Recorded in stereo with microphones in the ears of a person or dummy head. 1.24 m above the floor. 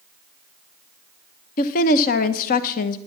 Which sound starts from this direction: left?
A woman speaking, at 1.6 s.